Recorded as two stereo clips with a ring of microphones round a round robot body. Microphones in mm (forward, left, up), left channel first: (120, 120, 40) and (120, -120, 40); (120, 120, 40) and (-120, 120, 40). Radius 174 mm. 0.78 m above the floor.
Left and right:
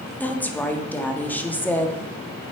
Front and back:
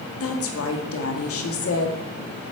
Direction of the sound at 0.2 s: 5° left.